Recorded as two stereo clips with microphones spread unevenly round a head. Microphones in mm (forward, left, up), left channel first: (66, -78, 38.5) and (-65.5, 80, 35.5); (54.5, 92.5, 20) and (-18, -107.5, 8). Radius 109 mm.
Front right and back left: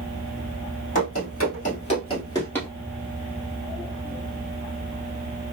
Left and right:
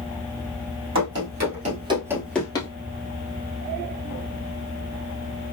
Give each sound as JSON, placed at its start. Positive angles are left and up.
{"t": 0.9, "sound": "running footsteps", "azimuth_deg": -90, "distance_m": 2.0}